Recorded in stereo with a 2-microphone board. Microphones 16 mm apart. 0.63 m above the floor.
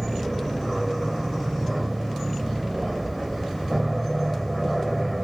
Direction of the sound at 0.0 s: 5° right (ahead or behind).